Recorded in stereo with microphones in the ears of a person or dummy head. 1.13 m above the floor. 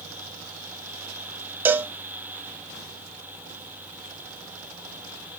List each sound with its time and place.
1.6 s a cowbell: 15° right (ahead or behind), 0.6 m